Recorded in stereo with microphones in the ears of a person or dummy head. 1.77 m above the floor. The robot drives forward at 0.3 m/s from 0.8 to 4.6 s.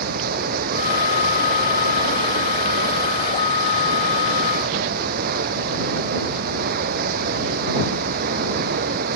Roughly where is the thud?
No thud in this recording.